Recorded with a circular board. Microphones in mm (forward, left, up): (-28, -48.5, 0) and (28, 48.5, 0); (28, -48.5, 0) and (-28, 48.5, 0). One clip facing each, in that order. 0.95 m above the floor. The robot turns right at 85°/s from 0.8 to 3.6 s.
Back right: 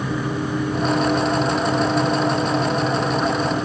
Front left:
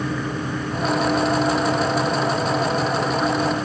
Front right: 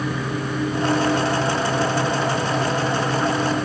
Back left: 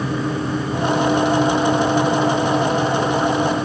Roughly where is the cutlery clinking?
I don't hear cutlery clinking.